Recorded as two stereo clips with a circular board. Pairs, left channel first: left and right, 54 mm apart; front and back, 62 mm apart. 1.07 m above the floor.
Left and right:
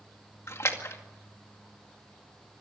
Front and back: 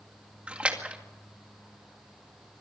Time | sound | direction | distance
0.5 | a splash | 110° left | 2 m